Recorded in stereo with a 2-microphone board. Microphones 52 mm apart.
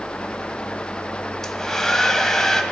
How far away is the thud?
No thud in this recording.